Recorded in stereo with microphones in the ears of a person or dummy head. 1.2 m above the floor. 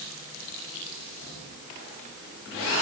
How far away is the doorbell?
No doorbell in this recording.